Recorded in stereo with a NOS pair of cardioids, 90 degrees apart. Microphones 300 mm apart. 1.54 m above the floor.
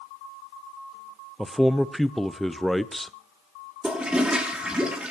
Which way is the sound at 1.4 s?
Straight ahead.